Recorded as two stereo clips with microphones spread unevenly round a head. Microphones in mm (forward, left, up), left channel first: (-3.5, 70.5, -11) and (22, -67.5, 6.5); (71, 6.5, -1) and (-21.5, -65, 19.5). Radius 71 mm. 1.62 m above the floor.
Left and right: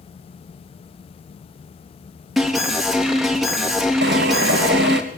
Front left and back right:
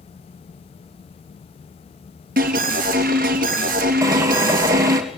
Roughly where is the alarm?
Behind.